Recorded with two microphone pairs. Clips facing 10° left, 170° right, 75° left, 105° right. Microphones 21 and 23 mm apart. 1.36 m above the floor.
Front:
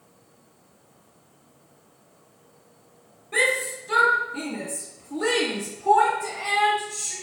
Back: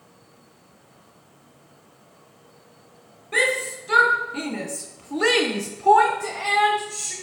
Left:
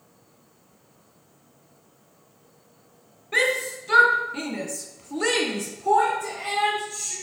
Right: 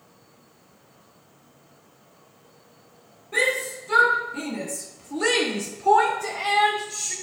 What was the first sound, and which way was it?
A shout, 125° left.